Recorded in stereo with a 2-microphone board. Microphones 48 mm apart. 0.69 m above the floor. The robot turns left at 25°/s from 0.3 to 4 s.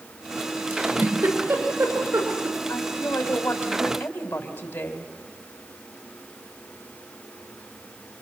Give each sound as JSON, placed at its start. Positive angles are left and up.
{"t": 0.7, "sound": "a giggle", "side_deg": -30, "distance_m": 5.5}
{"t": 2.7, "sound": "a woman speaking", "azimuth_deg": 70, "distance_m": 3.5}